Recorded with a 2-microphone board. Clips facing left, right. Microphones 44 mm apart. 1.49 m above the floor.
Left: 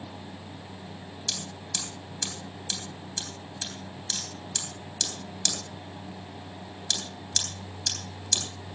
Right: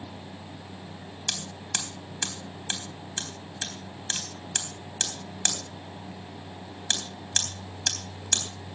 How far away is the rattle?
No rattle in this recording.